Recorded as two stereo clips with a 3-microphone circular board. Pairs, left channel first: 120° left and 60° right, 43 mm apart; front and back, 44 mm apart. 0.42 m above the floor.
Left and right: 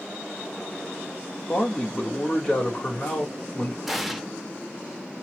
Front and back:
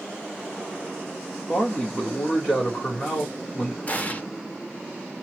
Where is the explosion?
25° left, 0.5 m.